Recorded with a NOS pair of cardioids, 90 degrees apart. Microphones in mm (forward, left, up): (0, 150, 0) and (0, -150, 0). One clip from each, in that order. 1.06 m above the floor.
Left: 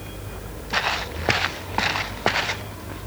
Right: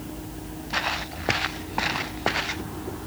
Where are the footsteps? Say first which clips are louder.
Left 3 dB; 25° left.